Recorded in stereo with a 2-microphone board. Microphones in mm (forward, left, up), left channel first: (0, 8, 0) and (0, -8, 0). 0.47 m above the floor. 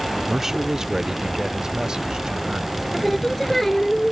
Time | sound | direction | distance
0.3 | a man speaking | 20° right (ahead or behind) | ?
2.9 | singing | 15° left (ahead or behind) | ?